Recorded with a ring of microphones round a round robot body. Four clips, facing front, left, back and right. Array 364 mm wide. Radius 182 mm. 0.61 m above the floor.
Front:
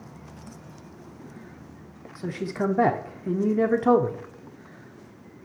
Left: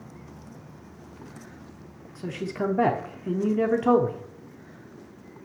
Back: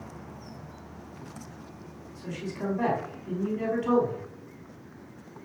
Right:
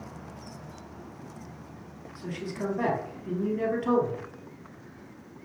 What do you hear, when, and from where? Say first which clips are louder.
2.1 s a man speaking: left 5 dB, front 7 dB; 30° left, 1.5 m